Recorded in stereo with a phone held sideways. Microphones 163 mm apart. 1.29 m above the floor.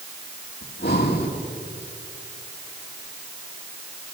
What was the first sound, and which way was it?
Breathing, 80° left.